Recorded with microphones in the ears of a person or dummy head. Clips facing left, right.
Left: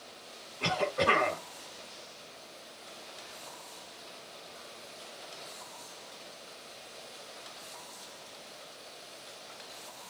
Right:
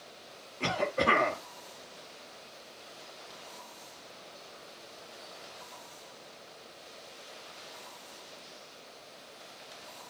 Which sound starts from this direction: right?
A cough, at 0.6 s.